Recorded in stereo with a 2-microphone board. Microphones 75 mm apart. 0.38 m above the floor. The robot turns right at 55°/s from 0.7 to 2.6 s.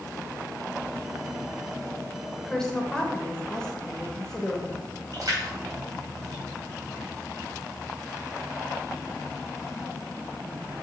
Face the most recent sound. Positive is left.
turn(degrees=-55)  # may be behind; listen again after turning